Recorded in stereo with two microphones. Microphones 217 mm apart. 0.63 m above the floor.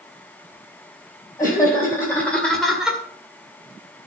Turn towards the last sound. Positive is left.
turn(degrees=-5)  # may be behind; listen again after turning